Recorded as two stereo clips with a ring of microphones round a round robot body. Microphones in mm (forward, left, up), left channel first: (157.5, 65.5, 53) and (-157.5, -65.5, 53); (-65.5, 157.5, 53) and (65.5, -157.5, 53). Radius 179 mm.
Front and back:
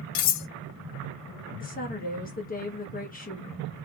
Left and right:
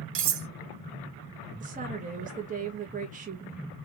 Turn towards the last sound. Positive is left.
turn(degrees=-20)